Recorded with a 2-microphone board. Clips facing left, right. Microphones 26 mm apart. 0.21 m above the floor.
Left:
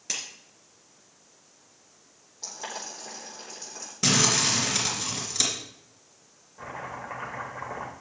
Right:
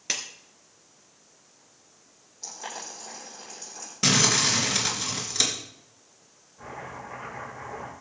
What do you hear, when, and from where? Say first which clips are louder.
0.1 s a clap: right 3 dB; 30° right (ahead or behind), 2.5 m
2.4 s boiling: left 1 dB; 20° left (ahead or behind), 8 m
4.0 s crumpling: right 1 dB; 15° right (ahead or behind), 3.5 m
6.6 s chopping: left 2 dB; 35° left (ahead or behind), 9 m